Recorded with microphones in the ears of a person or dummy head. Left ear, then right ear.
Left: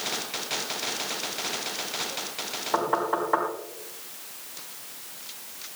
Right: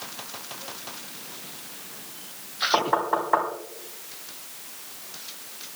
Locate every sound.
2.7 s knocking: 10° right (ahead or behind), 3.5 m